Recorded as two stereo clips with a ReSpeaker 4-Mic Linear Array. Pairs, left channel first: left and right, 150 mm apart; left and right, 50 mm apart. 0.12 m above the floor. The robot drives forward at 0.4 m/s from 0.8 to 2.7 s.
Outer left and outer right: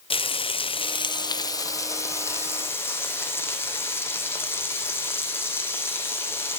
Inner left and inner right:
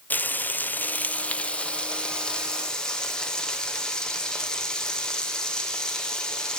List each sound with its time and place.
0.1 s frying: 35° left (ahead or behind), 0.5 m; by 6.6 s 15° left (ahead or behind), 1.2 m